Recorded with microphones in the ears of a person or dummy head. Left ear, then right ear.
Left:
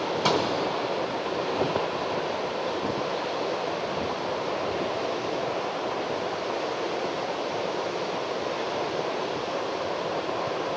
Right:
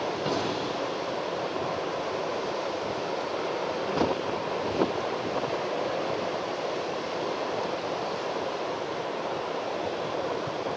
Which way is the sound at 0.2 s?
40° left (ahead or behind).